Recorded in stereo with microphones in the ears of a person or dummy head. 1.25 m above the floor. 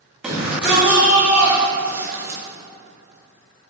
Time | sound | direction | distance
0.2 | a shout | 5° right (ahead or behind) | 2.5 m